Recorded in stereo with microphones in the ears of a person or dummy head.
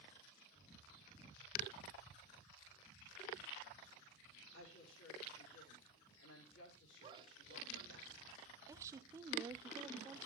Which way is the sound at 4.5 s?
75° left (ahead or behind).